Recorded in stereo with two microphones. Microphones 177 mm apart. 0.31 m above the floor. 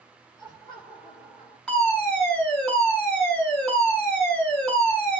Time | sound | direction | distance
0.4 | laughter | 30° left (ahead or behind) | 4 m
1.7 | a fire alarm | 5° left (ahead or behind) | 5.5 m